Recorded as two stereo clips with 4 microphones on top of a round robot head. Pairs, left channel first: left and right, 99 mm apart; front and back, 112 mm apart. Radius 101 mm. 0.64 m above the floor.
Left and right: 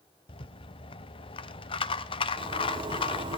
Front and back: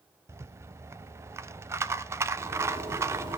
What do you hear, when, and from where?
0.3 s a rattle: 115° left, 0.7 m
2.4 s a zipper: 125° right, 4 m